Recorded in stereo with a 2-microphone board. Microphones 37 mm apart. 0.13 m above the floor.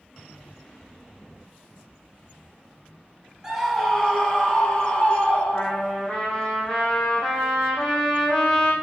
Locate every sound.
3.4 s a scream: 20° right (ahead or behind), 1.9 m; by 5.9 s 30° left (ahead or behind), 3.5 m
5.5 s a trumpet: 15° left (ahead or behind), 1.6 m